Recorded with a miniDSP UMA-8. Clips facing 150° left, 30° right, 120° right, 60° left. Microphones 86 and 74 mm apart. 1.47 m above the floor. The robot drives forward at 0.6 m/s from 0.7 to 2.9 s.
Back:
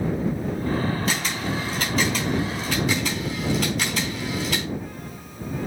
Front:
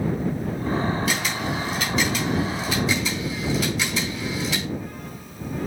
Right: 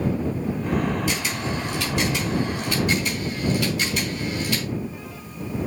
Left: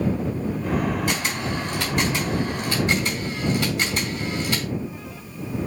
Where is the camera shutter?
95° left, 4 m; by 4.7 s 110° left, 4 m.